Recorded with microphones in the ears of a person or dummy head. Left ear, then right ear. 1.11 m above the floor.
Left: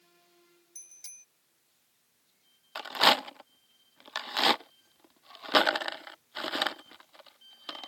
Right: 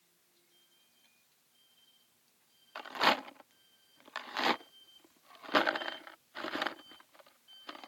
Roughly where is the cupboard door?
I don't hear a cupboard door.